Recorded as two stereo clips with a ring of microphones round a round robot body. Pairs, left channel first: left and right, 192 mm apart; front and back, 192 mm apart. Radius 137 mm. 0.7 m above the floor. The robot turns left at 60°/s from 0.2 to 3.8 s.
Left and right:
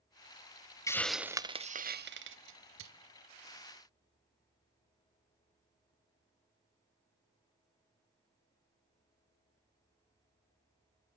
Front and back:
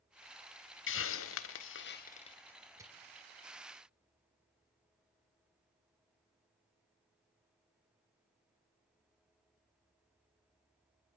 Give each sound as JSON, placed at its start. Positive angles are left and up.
{"t": 0.9, "sound": "a hiss", "azimuth_deg": 15, "distance_m": 1.1}